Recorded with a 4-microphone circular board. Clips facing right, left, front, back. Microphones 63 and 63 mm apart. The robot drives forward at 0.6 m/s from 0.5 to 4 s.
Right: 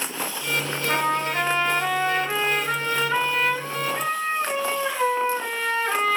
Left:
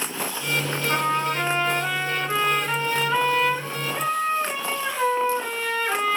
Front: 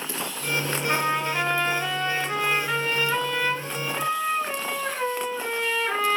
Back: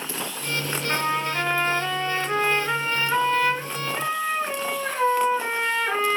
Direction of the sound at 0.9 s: 75° right.